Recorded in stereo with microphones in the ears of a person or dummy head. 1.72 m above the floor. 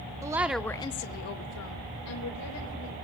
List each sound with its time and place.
0.2 s a woman speaking: 20° right (ahead or behind), 1.0 m; by 3.0 s 75° left (ahead or behind), 2.5 m